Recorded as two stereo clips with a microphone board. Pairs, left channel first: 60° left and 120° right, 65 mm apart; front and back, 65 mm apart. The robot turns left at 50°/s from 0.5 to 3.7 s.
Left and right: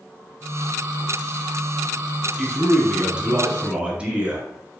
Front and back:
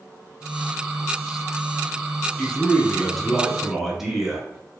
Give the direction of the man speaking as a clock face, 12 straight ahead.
1 o'clock.